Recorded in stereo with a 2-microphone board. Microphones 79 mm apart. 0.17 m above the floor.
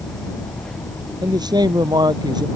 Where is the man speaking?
60° right (ahead or behind).